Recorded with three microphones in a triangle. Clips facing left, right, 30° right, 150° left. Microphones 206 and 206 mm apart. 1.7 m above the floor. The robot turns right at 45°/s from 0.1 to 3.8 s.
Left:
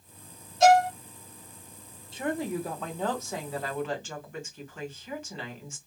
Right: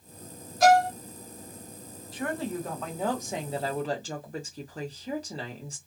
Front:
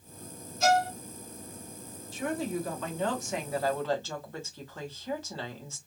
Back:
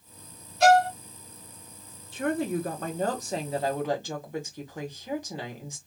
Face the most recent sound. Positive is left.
turn(degrees=-135)